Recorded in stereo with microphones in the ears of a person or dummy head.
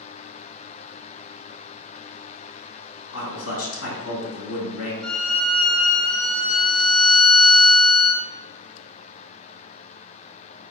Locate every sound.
3.1 s a man speaking: 70° left (ahead or behind), 1.8 m
5.0 s a violin: 10° left (ahead or behind), 0.6 m